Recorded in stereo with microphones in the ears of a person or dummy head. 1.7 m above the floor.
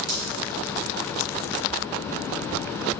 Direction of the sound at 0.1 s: 45° right (ahead or behind).